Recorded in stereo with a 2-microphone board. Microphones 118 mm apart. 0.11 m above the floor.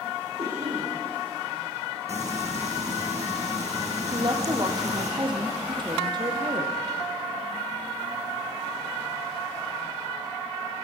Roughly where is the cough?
Right.